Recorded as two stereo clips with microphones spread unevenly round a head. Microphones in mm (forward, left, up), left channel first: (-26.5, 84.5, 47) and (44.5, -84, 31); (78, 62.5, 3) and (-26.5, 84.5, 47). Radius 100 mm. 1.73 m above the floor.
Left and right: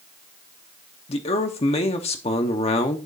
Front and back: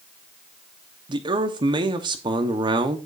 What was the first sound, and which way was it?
A man speaking, 165° left.